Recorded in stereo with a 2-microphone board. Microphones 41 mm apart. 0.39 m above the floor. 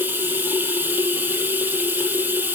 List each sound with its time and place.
0.0 s running water: 60° right (ahead or behind), 3 m